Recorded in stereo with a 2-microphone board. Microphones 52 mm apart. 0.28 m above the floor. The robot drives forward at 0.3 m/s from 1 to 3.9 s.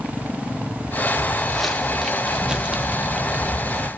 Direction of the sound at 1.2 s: 5° left (ahead or behind).